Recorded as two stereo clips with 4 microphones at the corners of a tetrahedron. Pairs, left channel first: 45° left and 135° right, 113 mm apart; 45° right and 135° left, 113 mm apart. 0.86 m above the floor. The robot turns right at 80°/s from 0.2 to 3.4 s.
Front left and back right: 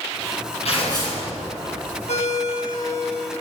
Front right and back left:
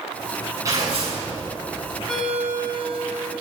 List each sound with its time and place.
0.7 s tearing paper: 75° left, 8.5 m; by 1.2 s 120° left, 8.5 m
2.1 s a ringtone: 40° left, 3.5 m; by 3.3 s 140° left, 3.5 m